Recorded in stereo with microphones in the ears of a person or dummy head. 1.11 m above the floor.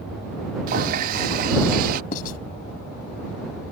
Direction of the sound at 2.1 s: 50° left (ahead or behind).